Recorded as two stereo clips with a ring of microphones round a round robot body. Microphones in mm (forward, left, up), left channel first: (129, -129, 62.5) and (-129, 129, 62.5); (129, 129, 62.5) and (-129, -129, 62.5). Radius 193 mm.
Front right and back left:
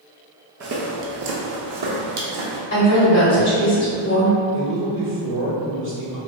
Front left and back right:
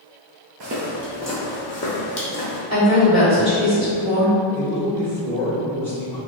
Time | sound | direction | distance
0.6 | footsteps | 170° right | 0.5 m
2.7 | a woman speaking | 75° right | 1.8 m
4.5 | a man speaking | 125° left | 1.5 m